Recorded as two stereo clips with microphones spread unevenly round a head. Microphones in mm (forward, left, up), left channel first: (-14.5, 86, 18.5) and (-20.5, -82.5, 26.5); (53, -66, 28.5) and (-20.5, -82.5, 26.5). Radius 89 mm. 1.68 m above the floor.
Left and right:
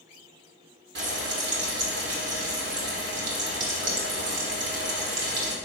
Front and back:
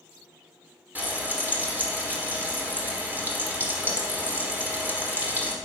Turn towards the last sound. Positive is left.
turn(degrees=-100)